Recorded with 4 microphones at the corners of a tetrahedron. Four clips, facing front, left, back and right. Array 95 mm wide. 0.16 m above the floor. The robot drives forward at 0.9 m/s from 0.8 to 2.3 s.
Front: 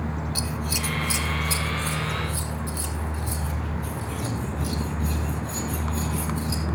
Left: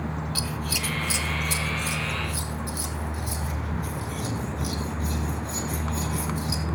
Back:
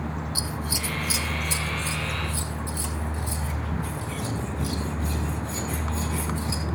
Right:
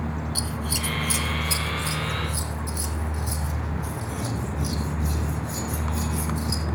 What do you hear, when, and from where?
0.3 s scissors: 110° left, 0.9 m; by 6.6 s 155° left, 1.8 m